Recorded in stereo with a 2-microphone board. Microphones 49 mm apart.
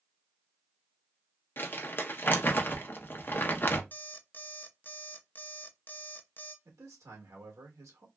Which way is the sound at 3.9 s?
40° left (ahead or behind).